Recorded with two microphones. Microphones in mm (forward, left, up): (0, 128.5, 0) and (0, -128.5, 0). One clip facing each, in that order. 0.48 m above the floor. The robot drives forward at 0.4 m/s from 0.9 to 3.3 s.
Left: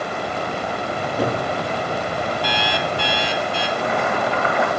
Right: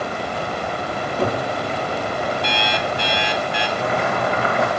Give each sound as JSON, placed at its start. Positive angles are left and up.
{"t": 0.9, "sound": "a cupboard door", "side_deg": 5, "distance_m": 5.0}
{"t": 2.4, "sound": "an alarm clock", "side_deg": -25, "distance_m": 0.8}
{"t": 3.8, "sound": "boiling", "side_deg": -35, "distance_m": 3.0}